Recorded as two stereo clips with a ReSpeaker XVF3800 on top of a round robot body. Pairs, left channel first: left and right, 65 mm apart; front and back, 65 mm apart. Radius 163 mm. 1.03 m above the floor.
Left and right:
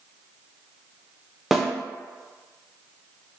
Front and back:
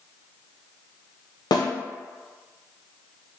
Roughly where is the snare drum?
Ahead.